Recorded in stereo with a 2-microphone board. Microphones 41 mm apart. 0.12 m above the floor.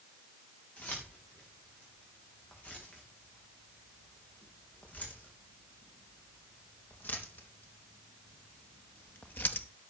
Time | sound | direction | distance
0.8 | keys jangling | 45° left (ahead or behind) | 9 m